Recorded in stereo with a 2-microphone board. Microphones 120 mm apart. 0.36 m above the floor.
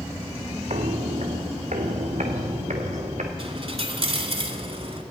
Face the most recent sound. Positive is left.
turn(degrees=-55)  # may be behind; listen again after turning